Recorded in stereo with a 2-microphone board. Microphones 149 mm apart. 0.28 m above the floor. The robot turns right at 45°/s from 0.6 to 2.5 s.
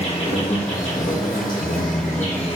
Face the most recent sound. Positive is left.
turn(degrees=135)